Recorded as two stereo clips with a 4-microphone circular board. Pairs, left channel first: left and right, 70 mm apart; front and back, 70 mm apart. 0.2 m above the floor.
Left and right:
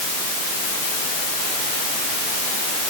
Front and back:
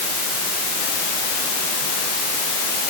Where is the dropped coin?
I don't hear a dropped coin.